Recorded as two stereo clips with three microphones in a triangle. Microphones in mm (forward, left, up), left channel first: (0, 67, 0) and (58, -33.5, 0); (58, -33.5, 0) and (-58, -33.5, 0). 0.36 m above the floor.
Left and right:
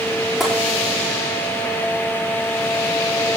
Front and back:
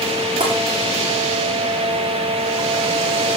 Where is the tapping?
145° right, 9.5 m.